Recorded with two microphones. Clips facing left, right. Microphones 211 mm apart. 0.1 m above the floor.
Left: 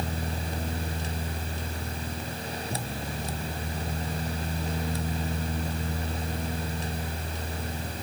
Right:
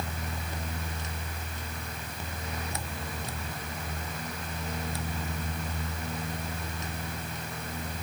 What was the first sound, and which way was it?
Only background noise.